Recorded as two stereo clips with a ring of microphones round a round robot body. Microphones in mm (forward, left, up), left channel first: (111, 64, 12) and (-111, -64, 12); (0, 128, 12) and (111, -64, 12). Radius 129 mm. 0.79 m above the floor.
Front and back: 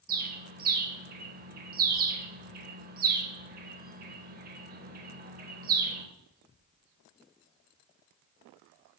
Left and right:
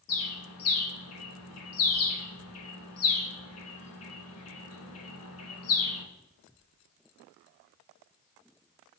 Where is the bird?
155° left, 1.0 m.